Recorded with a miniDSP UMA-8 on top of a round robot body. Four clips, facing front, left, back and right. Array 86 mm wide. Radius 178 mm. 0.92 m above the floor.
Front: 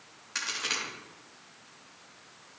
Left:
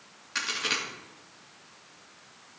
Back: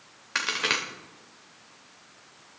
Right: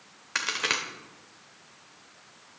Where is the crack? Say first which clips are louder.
Right 2 dB, back 7 dB; 145° right, 2 m.